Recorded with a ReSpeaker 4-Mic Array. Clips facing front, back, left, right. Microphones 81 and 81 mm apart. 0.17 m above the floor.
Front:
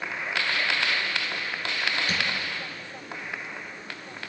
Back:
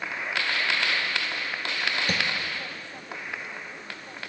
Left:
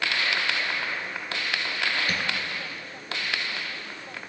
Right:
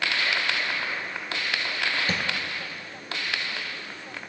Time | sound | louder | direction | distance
2.1 | tapping | back 1 dB, right 1 dB | 150° right | 0.8 m